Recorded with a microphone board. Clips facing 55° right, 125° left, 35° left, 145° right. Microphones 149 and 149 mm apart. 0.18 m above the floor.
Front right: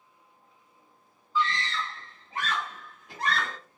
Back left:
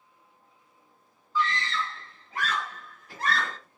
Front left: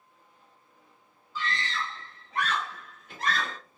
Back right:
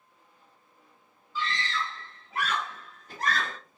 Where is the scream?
20° left, 1.3 m; by 3.6 s 125° right, 1.6 m.